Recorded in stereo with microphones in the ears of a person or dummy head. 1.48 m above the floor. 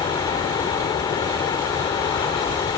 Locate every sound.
0.0 s a fan: 20° left (ahead or behind)